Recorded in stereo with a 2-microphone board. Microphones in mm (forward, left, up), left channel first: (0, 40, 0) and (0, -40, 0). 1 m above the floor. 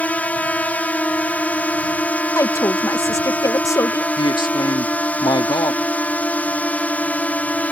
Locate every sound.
0.0 s a drone: 20° left (ahead or behind)
2.4 s a woman speaking: 40° left (ahead or behind)
4.2 s a man speaking: 70° left (ahead or behind)